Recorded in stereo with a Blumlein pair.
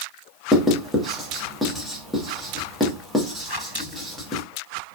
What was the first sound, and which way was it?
Writing, straight ahead.